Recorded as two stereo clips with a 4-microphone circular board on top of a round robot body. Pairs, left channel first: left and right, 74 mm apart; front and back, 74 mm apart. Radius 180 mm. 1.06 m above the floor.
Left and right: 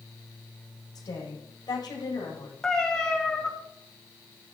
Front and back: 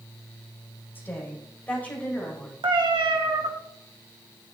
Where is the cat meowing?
170° left, 1.6 m.